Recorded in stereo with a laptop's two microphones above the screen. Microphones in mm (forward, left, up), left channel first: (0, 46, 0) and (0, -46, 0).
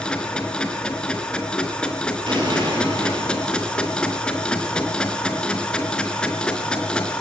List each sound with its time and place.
0.0 s a machine running: 10° left (ahead or behind), 4 m
2.3 s an explosion: 60° right (ahead or behind), 8.5 m